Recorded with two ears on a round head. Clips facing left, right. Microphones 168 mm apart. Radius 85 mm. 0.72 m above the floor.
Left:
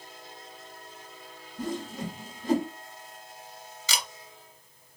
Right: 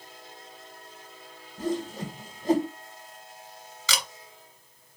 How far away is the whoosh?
About 1.0 m.